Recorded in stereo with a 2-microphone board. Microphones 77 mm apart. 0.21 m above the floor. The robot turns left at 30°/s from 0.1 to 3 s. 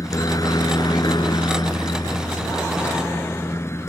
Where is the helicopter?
130° left; by 3.9 s 40° left.